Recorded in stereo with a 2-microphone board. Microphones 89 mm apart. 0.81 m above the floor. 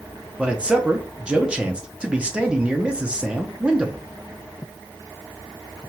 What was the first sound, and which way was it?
A man speaking, 10° right (ahead or behind).